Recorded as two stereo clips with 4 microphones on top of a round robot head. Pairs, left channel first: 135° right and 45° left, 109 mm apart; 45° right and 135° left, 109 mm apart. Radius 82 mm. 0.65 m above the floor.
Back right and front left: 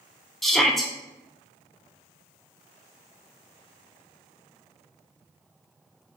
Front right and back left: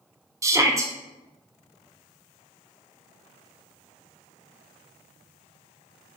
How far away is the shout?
About 0.5 m.